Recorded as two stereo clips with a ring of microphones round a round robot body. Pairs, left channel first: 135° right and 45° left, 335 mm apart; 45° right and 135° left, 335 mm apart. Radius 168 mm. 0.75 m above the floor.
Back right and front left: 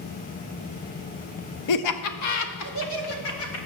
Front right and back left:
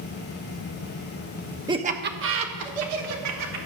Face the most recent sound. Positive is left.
turn(degrees=175)